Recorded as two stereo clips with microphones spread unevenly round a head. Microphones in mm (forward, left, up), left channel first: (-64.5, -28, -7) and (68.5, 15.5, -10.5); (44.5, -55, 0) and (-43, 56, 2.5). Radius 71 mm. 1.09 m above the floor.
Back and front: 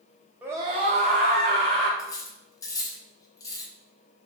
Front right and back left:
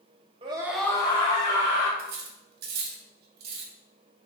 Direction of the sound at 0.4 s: 95° left.